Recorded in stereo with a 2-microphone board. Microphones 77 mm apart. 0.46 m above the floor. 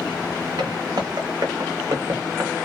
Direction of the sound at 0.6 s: 65° right (ahead or behind).